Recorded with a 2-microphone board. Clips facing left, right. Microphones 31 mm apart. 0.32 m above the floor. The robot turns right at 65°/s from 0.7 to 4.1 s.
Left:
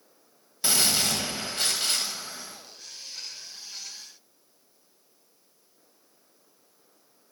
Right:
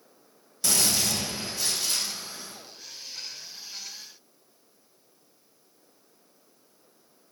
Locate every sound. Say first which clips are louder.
0.6 s a gunshot: left 1 dB; 30° left, 1.1 m; by 2.6 s 155° left, 1.1 m